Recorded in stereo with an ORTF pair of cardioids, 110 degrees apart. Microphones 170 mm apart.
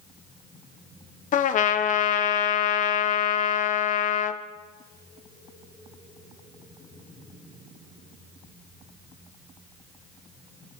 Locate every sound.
1.3 s a trumpet: 50° left, 0.9 m